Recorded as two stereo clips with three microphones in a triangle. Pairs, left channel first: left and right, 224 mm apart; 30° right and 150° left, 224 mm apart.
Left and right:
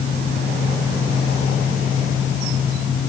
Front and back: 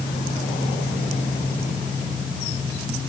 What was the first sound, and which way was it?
Only background noise.